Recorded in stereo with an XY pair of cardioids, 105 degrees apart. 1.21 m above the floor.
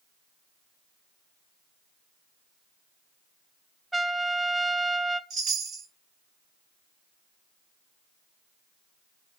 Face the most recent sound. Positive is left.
turn(degrees=-65)